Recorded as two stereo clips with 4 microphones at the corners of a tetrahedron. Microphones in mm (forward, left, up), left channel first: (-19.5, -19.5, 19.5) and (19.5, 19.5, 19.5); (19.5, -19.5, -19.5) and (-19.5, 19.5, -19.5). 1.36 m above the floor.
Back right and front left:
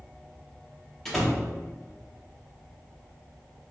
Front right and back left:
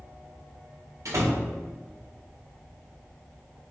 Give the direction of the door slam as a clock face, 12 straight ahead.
7 o'clock.